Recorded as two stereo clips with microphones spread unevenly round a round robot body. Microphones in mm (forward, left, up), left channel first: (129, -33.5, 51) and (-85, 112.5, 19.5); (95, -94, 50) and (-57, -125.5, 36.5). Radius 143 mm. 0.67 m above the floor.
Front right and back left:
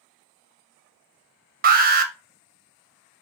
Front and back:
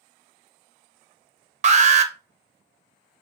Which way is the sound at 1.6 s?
Straight behind.